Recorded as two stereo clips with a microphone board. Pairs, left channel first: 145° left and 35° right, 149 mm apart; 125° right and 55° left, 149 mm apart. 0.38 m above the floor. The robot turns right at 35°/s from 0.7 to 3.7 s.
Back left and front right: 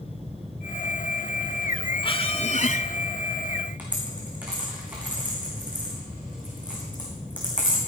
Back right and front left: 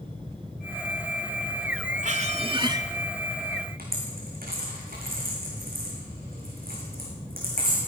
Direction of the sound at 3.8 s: 45° left.